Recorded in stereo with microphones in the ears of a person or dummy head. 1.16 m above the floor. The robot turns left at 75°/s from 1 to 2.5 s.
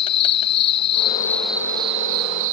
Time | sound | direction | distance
0.0 | an insect | 30° left | ?